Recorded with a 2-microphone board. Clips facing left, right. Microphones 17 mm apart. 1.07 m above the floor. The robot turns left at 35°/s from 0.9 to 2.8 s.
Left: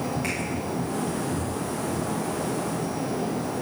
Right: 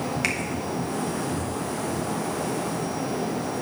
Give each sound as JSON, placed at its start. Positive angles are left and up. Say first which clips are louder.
{"t": 0.2, "sound": "a finger snap", "louder": "right 3 dB", "side_deg": -70, "distance_m": 1.3}